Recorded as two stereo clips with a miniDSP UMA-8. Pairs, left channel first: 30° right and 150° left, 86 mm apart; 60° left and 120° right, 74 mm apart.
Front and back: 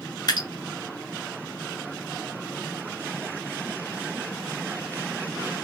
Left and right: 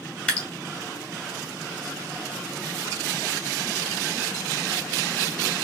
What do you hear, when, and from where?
0.3 s dripping: 10° right, 2 m